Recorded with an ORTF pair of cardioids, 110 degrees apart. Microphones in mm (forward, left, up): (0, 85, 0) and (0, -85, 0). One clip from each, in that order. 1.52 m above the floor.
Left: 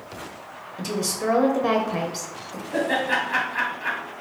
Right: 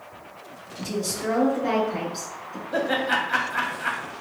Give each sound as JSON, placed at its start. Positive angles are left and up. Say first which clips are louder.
{"t": 0.8, "sound": "a woman speaking", "louder": "left 2 dB", "azimuth_deg": 35, "distance_m": 0.6}
{"t": 2.7, "sound": "laughter", "louder": "left 1 dB", "azimuth_deg": -25, "distance_m": 1.2}